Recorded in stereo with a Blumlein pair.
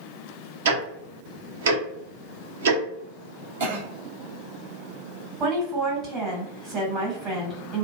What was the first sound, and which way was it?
Ticking, 60° right.